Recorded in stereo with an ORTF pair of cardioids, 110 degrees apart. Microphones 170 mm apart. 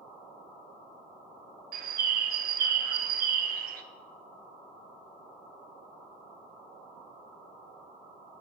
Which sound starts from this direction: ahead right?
A bird, at 1.7 s.